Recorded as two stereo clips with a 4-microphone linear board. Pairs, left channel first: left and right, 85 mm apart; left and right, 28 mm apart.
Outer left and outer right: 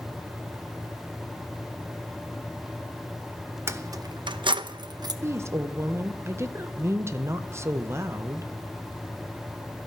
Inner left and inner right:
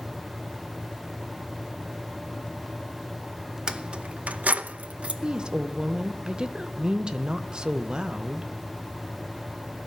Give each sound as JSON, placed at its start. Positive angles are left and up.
{"t": 3.7, "sound": "keys jangling", "side_deg": -30, "distance_m": 0.9}
{"t": 5.2, "sound": "a woman speaking", "side_deg": -30, "distance_m": 0.9}